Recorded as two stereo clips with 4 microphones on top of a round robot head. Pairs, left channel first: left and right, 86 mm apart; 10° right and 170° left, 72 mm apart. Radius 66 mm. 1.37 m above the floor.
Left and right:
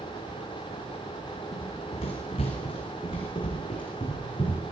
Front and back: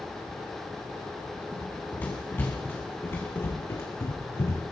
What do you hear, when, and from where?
1.5 s running footsteps: 60° left, 7.5 m; by 4.6 s 40° left, 7 m